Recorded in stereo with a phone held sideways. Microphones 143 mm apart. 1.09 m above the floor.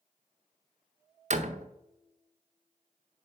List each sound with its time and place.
1.3 s a door slam: 55° right (ahead or behind), 0.5 m